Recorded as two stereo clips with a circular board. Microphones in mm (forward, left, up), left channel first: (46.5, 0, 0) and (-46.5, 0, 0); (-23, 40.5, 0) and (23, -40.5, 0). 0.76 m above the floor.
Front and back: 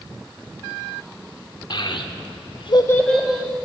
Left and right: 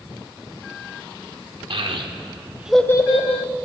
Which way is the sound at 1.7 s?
35° right.